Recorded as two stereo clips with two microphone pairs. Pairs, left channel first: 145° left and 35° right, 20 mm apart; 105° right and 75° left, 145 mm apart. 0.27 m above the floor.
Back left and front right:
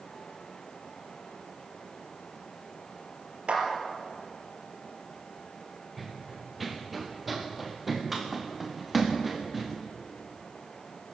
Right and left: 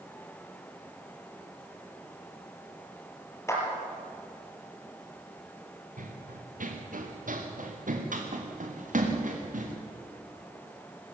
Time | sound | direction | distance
3.5 | a clap | 35° right | 5 m
6.0 | running footsteps | 55° left | 2.5 m